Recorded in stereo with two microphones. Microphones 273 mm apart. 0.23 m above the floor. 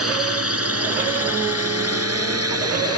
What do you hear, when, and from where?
0.0 s a drone: 60° right (ahead or behind); by 3.0 s 65° right (ahead or behind)